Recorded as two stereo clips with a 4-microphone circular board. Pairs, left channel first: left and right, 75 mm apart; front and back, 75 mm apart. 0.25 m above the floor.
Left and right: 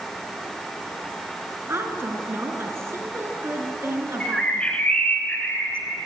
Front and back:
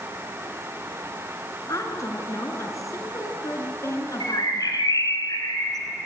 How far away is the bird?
About 2 m.